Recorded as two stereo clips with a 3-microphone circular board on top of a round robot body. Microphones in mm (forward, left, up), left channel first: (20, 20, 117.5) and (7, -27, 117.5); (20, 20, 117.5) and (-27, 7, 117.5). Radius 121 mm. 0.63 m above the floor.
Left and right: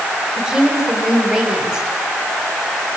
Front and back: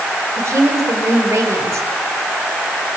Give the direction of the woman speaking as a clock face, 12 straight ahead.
6 o'clock.